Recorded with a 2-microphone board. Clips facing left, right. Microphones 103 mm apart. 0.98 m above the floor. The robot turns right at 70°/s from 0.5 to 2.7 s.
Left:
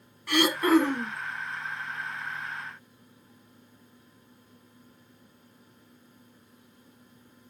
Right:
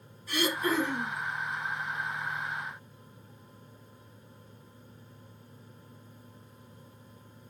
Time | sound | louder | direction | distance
0.3 | throat clearing | left 7 dB | 85° left | 2.5 m